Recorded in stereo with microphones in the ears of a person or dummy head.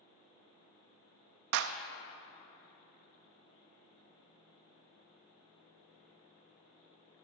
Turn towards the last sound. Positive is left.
turn(degrees=-65)  # may be behind; listen again after turning